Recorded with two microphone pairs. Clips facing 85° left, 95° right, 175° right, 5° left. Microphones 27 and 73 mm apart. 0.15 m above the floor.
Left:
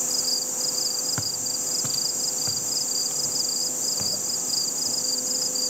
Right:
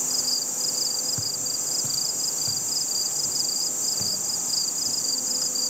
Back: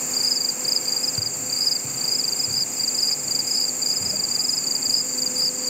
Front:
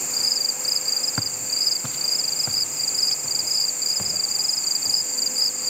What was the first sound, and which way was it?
Footsteps, 35° left.